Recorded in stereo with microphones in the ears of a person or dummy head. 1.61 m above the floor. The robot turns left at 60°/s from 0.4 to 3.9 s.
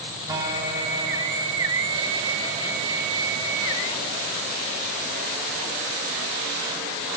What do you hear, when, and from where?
0.3 s a guitar: 150° right, 2 m; by 1.9 s 120° left, 2 m